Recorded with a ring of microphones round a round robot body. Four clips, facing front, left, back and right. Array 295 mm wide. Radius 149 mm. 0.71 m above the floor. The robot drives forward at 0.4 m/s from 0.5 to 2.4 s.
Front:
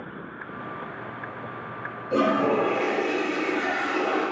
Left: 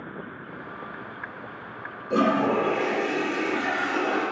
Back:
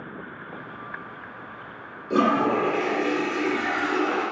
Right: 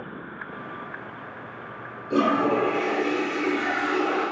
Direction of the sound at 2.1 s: 165° left.